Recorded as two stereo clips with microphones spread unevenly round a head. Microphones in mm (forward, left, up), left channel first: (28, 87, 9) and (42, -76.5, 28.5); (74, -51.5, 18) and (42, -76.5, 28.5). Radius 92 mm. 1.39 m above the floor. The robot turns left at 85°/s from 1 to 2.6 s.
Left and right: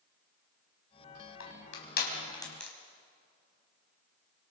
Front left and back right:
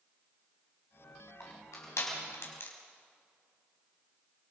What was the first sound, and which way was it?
Crushing, 110° left.